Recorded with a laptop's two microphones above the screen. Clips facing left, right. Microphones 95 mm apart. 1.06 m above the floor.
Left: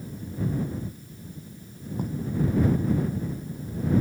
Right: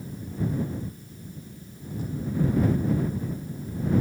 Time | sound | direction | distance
2.0 | writing | 50° left (ahead or behind) | ?